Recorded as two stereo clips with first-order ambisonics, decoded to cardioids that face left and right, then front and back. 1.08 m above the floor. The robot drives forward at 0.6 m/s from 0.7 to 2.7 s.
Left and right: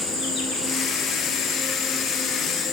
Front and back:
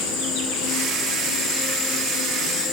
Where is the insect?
20° left, 3.5 m; by 2.7 s 25° left, 2.5 m.